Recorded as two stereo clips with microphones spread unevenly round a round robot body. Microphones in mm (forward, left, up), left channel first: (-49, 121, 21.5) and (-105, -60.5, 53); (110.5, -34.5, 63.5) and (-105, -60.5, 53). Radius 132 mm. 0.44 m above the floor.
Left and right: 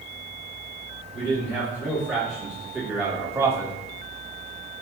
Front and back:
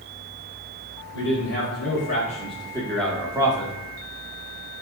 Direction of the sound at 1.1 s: 5° left.